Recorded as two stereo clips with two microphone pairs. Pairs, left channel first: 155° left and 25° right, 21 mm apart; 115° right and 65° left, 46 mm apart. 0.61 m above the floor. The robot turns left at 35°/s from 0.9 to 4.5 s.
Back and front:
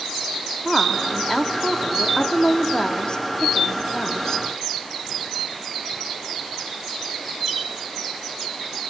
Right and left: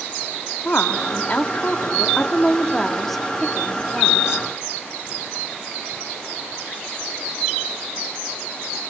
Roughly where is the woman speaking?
Behind right.